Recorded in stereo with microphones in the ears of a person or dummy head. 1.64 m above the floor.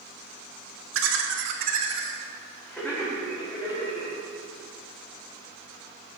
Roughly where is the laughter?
Right.